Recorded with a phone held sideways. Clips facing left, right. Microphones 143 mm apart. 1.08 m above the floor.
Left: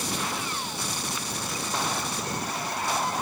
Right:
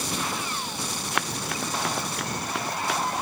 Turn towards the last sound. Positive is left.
turn(degrees=-85)